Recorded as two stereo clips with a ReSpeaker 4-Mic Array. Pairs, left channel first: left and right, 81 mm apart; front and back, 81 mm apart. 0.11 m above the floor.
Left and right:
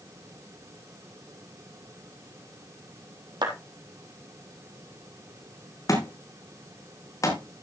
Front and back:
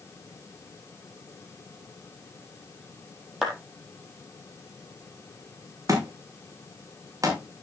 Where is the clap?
95° right, 3.5 m.